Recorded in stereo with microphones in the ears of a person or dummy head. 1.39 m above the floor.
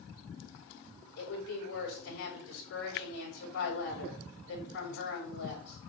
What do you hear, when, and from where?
1.2 s a woman speaking: 55° left (ahead or behind), 7 m